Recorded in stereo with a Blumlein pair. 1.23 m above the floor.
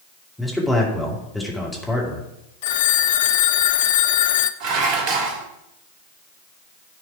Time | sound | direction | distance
0.4 | a man speaking | 5° left | 2.5 m
2.6 | a phone ringing | 55° left | 0.5 m
4.6 | dishes clattering | 45° right | 1.4 m